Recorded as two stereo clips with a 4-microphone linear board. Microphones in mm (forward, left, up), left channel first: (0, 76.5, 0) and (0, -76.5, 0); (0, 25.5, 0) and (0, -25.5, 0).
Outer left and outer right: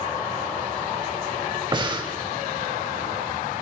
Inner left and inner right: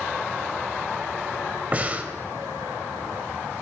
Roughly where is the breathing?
Right.